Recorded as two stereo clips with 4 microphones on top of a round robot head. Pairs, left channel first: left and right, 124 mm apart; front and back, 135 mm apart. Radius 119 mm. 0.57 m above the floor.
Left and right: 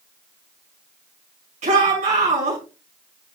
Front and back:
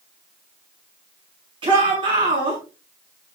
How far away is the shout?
About 6 m.